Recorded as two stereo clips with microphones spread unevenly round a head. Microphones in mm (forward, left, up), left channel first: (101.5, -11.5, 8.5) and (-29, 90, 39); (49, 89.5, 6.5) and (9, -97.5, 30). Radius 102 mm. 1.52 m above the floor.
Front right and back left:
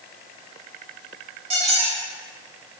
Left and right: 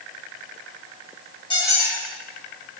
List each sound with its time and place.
1.5 s a squeak: 140° left, 0.8 m